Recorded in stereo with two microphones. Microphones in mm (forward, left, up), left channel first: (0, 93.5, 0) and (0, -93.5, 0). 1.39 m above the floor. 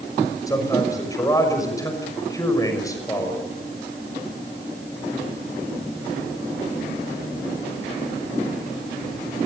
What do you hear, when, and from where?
0.5 s a man speaking: 20° left (ahead or behind), 6 m